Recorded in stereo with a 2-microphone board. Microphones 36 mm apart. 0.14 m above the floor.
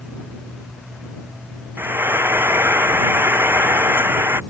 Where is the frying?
80° right.